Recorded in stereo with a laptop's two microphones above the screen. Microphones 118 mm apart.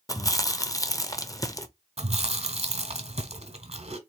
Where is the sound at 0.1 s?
30° left (ahead or behind), 0.7 m.